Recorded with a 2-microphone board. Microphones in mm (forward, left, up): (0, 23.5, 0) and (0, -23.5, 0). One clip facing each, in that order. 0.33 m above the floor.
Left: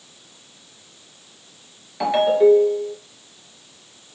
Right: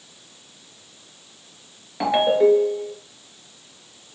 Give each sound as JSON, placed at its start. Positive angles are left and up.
{"t": 2.0, "sound": "a ringtone", "side_deg": -10, "distance_m": 2.5}